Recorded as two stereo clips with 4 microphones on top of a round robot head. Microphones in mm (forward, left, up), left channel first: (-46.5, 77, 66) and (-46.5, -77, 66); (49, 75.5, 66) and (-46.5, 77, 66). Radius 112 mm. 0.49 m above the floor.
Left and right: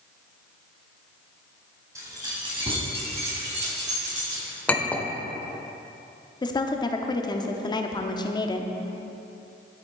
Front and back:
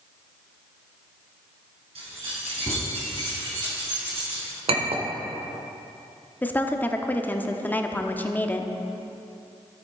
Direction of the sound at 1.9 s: 160° right.